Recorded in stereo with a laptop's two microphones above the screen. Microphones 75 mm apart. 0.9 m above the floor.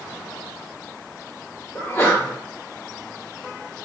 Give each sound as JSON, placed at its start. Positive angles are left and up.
{"t": 1.8, "sound": "a sneeze", "side_deg": 35, "distance_m": 1.5}